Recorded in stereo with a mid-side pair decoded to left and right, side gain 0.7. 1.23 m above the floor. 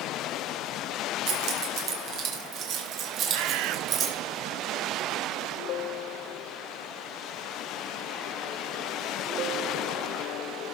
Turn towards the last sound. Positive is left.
turn(degrees=-65)